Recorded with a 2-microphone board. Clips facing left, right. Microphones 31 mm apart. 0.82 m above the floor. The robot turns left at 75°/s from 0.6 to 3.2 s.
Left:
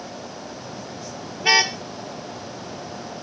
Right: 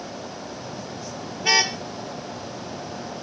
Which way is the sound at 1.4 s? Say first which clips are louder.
Left 2 dB; 20° left (ahead or behind).